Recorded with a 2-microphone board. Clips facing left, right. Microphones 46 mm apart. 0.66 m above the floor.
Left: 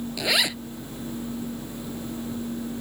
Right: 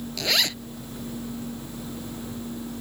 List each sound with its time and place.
0.2 s a zipper: 10° left (ahead or behind)